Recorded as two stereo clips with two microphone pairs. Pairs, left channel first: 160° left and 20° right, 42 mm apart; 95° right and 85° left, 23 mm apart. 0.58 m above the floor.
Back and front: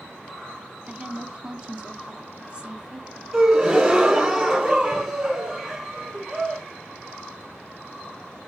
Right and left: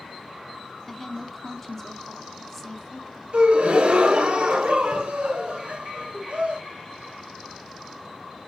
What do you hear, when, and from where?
0.9 s a woman speaking: 40° right, 0.6 m
3.3 s a gasp: 60° left, 1.0 m